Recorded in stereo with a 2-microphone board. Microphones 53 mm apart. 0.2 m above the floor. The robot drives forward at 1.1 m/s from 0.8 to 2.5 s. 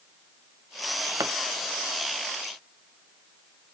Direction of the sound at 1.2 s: 75° right (ahead or behind).